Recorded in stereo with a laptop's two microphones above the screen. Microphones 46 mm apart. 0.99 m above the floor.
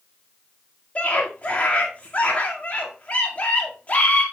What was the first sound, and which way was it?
A scream, 35° left (ahead or behind).